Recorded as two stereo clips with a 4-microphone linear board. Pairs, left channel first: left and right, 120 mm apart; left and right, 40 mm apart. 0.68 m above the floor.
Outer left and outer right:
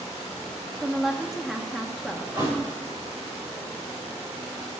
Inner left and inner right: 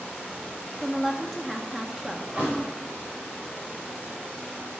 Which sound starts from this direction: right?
A thud, at 2.3 s.